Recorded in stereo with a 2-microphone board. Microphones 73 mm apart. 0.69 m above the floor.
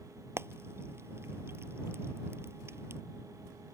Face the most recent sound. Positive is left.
turn(degrees=-35)  # may be behind; listen again after turning